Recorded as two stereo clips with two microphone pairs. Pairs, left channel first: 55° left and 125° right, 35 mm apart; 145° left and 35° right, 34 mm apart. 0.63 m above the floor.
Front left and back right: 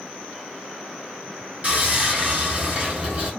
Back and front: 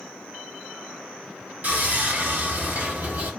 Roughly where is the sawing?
Ahead right.